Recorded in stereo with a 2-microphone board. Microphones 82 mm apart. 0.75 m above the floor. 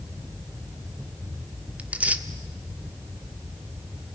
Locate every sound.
1.8 s tearing paper: 20° right (ahead or behind), 1.1 m